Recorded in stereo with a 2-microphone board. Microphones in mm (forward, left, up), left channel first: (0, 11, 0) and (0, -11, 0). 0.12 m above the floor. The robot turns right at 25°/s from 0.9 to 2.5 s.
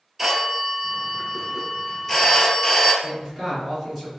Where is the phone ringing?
15° right, 1.4 m; by 2.9 s 25° left, 1.4 m.